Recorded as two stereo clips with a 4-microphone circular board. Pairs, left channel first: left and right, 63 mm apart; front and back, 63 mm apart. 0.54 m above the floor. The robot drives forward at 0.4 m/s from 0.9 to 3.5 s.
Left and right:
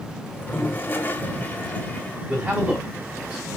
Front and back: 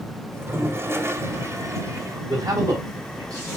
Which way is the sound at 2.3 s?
160° right.